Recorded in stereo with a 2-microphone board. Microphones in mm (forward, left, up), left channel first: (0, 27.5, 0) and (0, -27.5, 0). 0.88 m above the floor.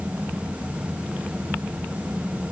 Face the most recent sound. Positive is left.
No sound to turn to.